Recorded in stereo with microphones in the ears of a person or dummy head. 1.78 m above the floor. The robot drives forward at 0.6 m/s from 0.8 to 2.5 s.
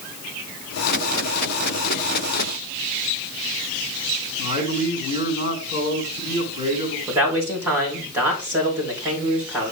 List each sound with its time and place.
4.4 s a man speaking: 50° left (ahead or behind), 3 m
7.1 s a man speaking: 10° right (ahead or behind), 3.5 m